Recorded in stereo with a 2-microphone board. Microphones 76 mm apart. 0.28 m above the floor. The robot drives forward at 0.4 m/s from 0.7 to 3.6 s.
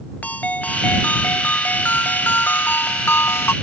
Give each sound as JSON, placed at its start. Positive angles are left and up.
{"t": 0.2, "sound": "a ringtone", "side_deg": 20}